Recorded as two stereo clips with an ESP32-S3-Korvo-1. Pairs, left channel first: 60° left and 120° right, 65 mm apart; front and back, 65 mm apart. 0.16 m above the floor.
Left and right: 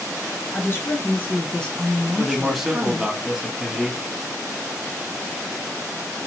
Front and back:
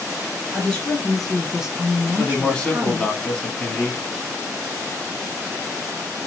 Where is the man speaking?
40° right, 1.2 m.